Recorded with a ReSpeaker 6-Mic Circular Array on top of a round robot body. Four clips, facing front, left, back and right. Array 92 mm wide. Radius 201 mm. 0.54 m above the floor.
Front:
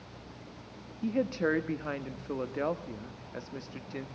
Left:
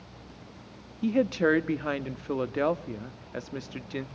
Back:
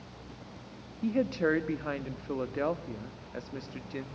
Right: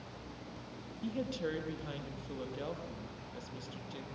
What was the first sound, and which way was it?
A woman speaking, 95° left.